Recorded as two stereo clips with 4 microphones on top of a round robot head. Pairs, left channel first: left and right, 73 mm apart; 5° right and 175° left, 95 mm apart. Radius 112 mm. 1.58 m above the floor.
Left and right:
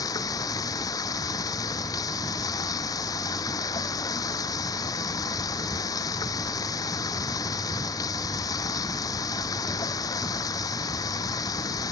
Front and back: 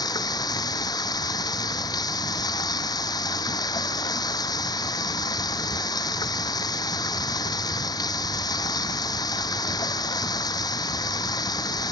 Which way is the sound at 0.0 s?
45° left.